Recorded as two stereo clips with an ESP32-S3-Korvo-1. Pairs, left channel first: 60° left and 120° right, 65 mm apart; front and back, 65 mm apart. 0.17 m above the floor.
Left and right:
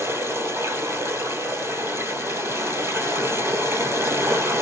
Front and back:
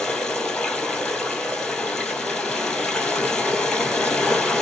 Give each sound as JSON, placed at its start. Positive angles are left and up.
{"t": 0.0, "sound": "running water", "azimuth_deg": -80, "distance_m": 1.9}